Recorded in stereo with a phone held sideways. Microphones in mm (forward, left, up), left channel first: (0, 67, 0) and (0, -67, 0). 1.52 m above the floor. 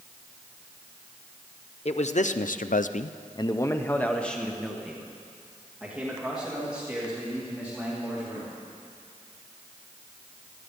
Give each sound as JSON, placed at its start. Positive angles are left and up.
{"t": 1.9, "sound": "a man speaking", "side_deg": 55, "distance_m": 0.8}